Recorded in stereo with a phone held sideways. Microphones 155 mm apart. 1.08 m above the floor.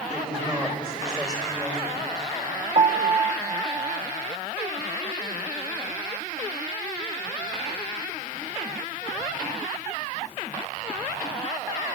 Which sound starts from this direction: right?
A piano, at 2.8 s.